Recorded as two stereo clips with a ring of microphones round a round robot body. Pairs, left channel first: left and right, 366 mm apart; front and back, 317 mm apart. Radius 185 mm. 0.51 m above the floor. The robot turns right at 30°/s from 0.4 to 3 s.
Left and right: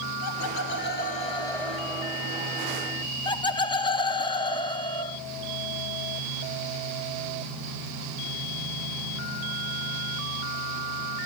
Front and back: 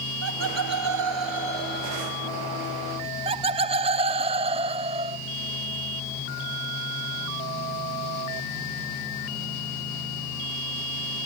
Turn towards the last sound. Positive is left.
turn(degrees=145)